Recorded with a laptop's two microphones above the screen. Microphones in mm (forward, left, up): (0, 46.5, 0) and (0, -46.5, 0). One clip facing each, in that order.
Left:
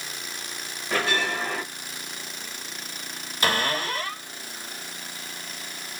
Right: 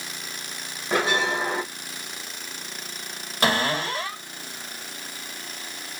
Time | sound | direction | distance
0.9 | a bell | 20° right (ahead or behind) | 0.8 m
3.4 | a cupboard door | 65° right (ahead or behind) | 1.9 m